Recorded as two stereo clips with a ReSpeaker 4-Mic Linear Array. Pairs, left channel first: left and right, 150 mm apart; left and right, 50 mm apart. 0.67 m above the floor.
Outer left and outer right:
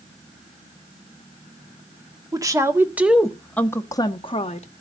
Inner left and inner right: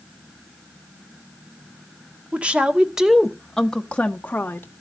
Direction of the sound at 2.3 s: 25° right (ahead or behind).